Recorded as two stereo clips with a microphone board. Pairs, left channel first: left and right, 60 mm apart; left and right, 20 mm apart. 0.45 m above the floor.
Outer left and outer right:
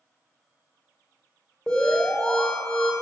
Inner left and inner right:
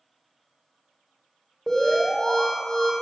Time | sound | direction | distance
1.7 | an alarm | 15° left (ahead or behind) | 1.5 m